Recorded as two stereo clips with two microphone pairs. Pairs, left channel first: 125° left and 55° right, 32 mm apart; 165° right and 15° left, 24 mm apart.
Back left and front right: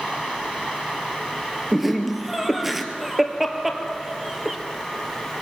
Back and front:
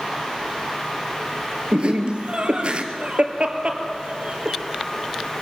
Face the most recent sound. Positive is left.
turn(degrees=25)